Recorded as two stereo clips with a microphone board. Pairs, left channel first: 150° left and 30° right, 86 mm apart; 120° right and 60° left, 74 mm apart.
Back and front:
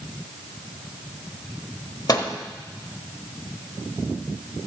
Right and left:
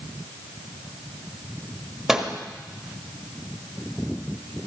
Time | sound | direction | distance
2.1 | a microwave | 140° left | 1.3 m